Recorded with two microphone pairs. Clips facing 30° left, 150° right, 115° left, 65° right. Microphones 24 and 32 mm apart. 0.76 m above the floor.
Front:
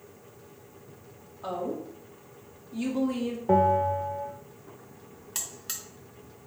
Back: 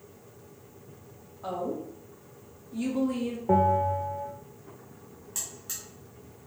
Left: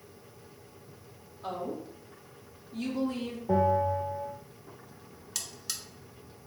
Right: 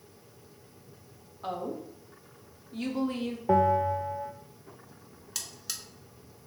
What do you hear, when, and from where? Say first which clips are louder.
1.4 s a woman speaking: even, right 1 dB; 30° right, 1.1 m
3.5 s a bell: front 1 dB, right 2 dB; 40° right, 0.6 m
5.3 s a buzzer: front 1 dB, even; 20° left, 0.7 m